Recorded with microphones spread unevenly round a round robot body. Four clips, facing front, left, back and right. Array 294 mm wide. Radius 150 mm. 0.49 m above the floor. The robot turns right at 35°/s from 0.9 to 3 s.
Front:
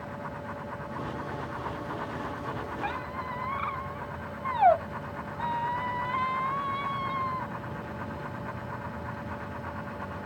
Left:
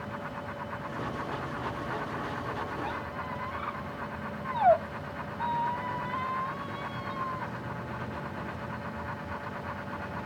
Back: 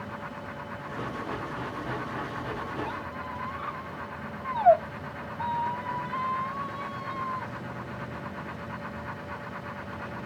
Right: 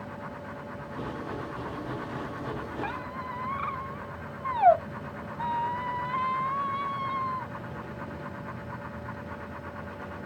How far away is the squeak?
About 0.7 m.